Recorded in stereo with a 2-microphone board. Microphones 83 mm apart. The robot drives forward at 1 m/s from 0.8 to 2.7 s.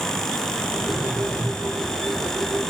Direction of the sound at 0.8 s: 85° right.